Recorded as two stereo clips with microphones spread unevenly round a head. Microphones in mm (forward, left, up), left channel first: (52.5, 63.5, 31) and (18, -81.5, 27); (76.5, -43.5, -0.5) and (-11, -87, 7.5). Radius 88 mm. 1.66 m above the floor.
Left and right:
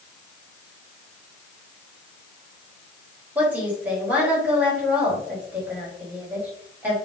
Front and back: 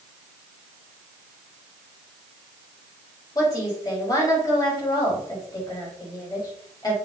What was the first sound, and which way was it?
A woman speaking, 25° right.